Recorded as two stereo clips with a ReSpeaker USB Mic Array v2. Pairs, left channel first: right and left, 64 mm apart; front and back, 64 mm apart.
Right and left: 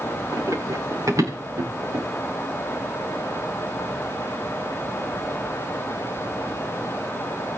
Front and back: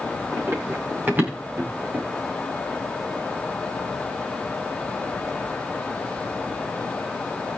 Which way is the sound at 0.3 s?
125° left.